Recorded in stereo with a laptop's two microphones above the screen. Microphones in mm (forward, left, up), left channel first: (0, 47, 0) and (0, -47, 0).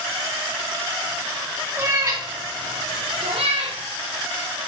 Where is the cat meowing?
25° right (ahead or behind), 1.1 m; by 3.8 s 80° right, 1.4 m.